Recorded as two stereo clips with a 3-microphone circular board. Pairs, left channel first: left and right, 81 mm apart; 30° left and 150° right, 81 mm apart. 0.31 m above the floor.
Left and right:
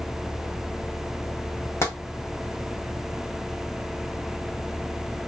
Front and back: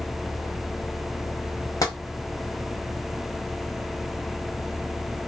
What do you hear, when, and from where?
1.8 s tapping: 45° left, 0.9 m